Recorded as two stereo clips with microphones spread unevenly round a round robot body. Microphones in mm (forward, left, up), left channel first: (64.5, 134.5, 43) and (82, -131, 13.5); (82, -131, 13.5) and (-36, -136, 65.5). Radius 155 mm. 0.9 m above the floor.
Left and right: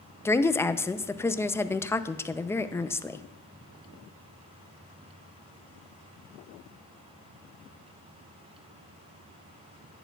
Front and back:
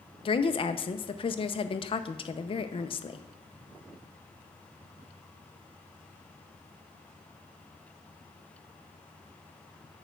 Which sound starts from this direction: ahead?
A woman speaking, at 0.2 s.